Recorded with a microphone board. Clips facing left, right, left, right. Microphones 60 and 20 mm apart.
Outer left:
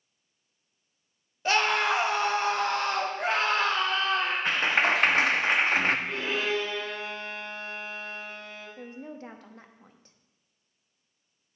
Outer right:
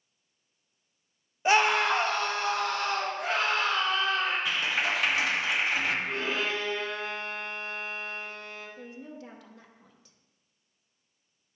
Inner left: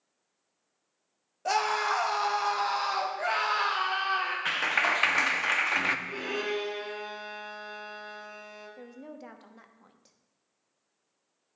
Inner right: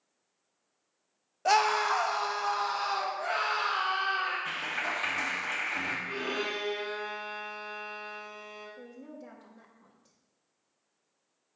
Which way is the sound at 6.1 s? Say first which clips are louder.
Outer left 1 dB, inner left 1 dB; 20° right (ahead or behind).